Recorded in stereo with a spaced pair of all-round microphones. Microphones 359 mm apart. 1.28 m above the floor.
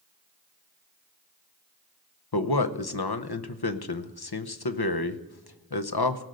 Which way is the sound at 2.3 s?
80° left.